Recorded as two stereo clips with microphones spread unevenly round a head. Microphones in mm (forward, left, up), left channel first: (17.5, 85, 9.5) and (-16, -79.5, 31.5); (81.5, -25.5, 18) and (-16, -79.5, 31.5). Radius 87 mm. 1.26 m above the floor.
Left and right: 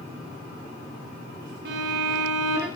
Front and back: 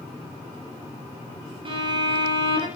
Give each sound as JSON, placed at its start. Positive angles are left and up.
{"t": 1.6, "sound": "a violin", "azimuth_deg": -120, "distance_m": 4.0}